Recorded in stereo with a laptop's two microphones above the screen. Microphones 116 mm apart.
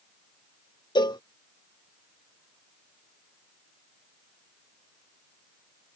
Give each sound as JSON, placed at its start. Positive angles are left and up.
{"t": 0.9, "sound": "a cowbell", "side_deg": 40}